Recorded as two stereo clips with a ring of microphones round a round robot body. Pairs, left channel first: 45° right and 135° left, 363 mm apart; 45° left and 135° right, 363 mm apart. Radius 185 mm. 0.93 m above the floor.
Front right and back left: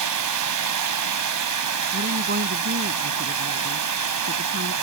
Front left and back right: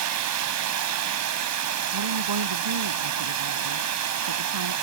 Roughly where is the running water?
Behind.